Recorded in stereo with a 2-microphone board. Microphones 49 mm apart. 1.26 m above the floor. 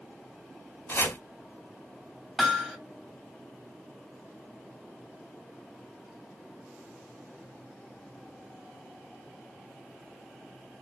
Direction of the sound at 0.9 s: 50° left (ahead or behind).